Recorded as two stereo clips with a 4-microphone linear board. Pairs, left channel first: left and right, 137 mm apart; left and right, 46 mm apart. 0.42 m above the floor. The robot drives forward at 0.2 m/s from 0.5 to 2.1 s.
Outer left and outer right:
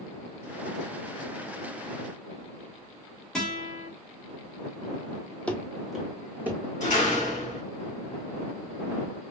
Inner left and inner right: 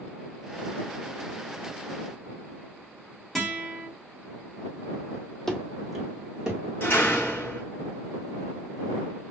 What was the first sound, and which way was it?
A guitar, 5° left (ahead or behind).